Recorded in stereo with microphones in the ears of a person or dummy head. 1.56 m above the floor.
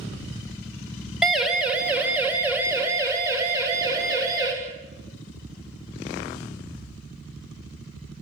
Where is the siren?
Centre (ahead or behind), 2.5 m; by 4.5 s 25° right (ahead or behind), 5 m.